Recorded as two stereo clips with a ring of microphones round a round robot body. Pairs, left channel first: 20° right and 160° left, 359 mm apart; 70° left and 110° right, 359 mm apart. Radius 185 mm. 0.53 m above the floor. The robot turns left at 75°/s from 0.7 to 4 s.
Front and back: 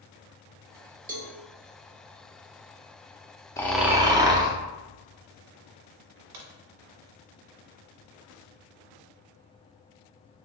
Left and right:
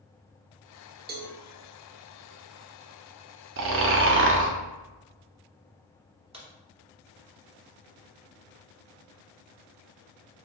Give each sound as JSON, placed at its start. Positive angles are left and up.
{"t": 1.1, "sound": "a cowbell", "azimuth_deg": -155, "distance_m": 0.7}
{"t": 3.6, "sound": "snoring", "azimuth_deg": -100, "distance_m": 0.5}
{"t": 6.3, "sound": "a crack", "azimuth_deg": 175, "distance_m": 1.1}